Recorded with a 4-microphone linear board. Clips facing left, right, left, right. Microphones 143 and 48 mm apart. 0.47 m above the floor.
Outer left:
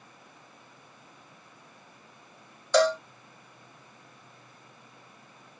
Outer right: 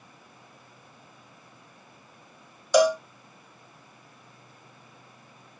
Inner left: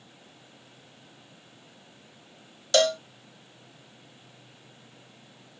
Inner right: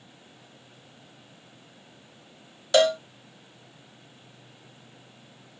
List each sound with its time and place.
2.7 s a cowbell: 15° right (ahead or behind)